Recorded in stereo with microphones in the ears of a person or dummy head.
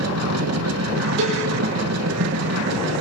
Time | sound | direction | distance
0.0 | a machine running | 90° right | 1.6 m
1.2 | a cowbell | 75° right (ahead or behind) | 7.5 m